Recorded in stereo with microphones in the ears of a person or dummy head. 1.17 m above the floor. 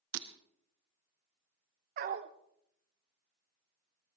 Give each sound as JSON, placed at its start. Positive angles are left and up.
{"t": 0.1, "sound": "breaking glass", "side_deg": -70, "distance_m": 1.0}
{"t": 2.0, "sound": "a dog barking", "side_deg": -45, "distance_m": 0.9}